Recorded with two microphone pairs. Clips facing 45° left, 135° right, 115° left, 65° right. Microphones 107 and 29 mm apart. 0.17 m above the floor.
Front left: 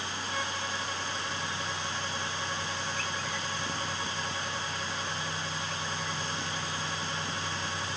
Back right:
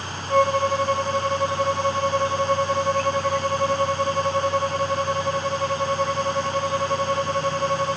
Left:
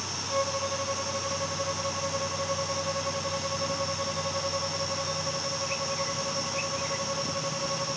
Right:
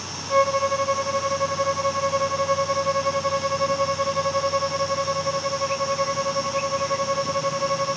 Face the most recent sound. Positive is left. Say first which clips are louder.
# back right 19 dB, right 10 dB
turn(degrees=-110)